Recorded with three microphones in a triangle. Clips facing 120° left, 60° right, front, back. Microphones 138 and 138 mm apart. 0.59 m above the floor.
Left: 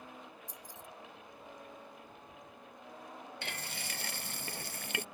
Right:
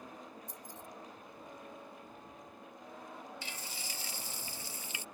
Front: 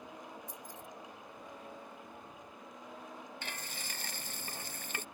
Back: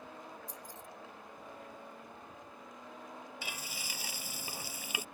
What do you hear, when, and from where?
0.5 s keys jangling: 30° right
3.4 s frying: 100° left